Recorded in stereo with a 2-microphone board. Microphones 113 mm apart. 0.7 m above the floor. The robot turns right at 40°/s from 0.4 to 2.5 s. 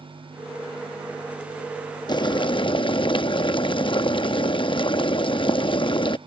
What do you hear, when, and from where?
2.1 s boiling: 40° left (ahead or behind); by 6.2 s 50° left (ahead or behind)